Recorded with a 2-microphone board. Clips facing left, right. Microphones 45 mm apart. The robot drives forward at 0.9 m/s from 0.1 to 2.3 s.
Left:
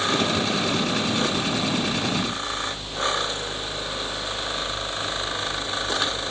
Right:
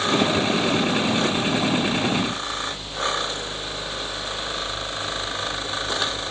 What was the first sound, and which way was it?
Only background noise.